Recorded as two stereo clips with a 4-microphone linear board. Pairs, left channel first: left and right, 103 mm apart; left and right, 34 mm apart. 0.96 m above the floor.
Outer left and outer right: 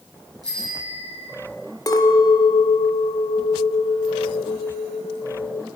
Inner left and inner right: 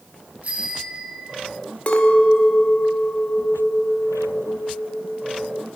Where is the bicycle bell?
40° right (ahead or behind), 7.5 m.